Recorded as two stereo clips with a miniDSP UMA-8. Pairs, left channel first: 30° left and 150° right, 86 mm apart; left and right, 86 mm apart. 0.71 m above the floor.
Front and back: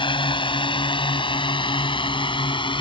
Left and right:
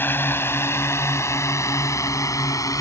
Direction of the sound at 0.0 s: 25° left.